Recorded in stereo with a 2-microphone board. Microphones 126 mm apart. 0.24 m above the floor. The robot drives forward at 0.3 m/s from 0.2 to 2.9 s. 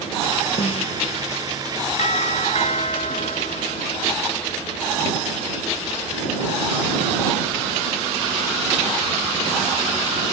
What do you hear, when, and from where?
0.6 s a snare drum: 50° left (ahead or behind)
2.0 s a doorbell: 60° left (ahead or behind)